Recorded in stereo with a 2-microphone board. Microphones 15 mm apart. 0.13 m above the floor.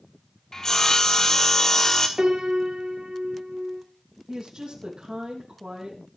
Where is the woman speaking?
55° right (ahead or behind), 5.5 m.